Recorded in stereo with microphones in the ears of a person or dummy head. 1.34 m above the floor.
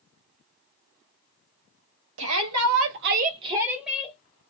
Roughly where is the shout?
Right.